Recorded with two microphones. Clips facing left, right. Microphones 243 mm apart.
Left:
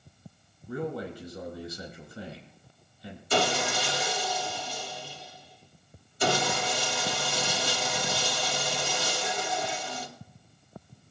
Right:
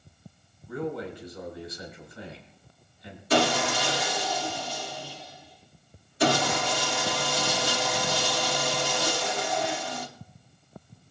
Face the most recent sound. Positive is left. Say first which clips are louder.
# right 3 dB
turn(degrees=-70)  # may be behind; listen again after turning